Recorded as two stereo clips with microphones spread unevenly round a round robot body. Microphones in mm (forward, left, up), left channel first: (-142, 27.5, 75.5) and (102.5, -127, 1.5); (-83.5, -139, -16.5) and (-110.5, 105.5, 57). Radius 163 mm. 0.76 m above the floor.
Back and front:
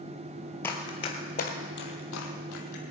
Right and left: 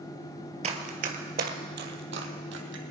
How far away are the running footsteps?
About 0.9 m.